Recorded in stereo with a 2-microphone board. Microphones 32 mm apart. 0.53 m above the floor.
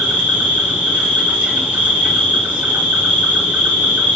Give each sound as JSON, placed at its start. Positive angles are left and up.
{"t": 0.0, "sound": "an insect", "side_deg": -65, "distance_m": 1.5}